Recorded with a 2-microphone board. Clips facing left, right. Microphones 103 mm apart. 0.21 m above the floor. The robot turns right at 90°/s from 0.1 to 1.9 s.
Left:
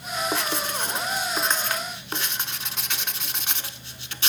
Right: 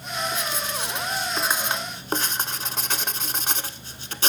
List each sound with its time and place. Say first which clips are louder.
0.3 s writing: left 2 dB; 65° left (ahead or behind), 0.6 m; by 4.3 s 40° right (ahead or behind), 0.6 m